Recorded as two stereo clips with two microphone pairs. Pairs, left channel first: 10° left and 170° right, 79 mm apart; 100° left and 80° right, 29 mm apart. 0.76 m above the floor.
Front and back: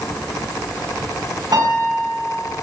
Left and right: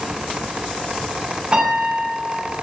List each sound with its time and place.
1.5 s a piano: 140° right, 6 m